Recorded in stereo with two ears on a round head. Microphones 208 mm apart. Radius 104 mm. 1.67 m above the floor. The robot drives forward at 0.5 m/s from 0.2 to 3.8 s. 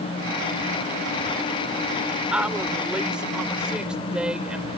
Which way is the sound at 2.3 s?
5° right (ahead or behind).